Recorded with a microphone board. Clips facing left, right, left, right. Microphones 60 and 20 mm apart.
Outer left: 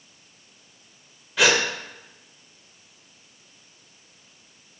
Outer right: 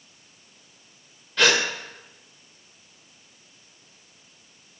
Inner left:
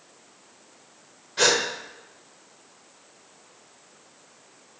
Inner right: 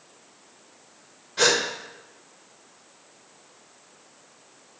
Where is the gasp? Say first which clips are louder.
Outer left 1 dB, even; 10° left (ahead or behind), 0.9 m.